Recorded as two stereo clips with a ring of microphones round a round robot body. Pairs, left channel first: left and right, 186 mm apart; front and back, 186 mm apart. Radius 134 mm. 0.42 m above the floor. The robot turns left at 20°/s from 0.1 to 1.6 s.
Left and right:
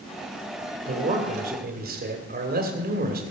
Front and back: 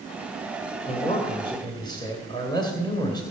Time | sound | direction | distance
0.8 | a man speaking | 55° right | 2.5 m